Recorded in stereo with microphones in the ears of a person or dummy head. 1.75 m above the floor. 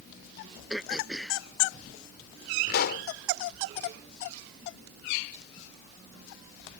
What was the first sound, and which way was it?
Throat clearing, centre (ahead or behind).